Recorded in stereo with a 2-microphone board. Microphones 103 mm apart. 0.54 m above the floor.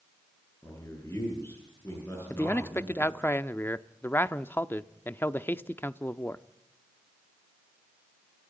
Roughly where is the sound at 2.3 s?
Left.